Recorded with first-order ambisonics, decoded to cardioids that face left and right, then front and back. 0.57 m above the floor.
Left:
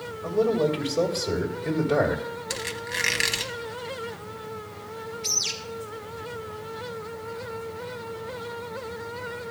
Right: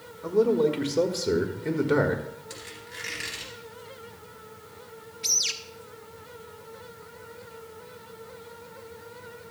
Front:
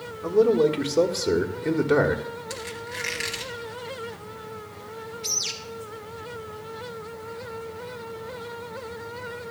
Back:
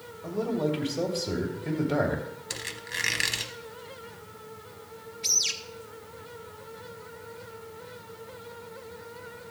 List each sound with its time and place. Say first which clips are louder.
0.2 s a man speaking: right 1 dB, front 10 dB; 20° right, 1.5 m
2.5 s a squeak: left 11 dB, front 1 dB; 115° left, 0.9 m
5.2 s a bird: right 1 dB, back 2 dB; 105° right, 0.8 m